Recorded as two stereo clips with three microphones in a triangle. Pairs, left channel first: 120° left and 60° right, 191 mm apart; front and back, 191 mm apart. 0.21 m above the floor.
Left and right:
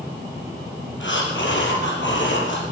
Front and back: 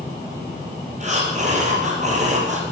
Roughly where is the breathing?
Behind left.